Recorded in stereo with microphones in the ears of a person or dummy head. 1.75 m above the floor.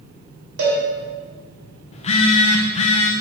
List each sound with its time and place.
0.6 s a cowbell: 70° right (ahead or behind), 3 m
1.9 s a phone buzzing: 35° left (ahead or behind), 0.8 m